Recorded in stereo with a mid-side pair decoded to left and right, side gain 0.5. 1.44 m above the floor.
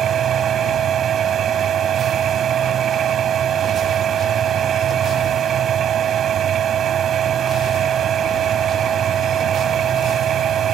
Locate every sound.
0.0 s a machine running: 55° right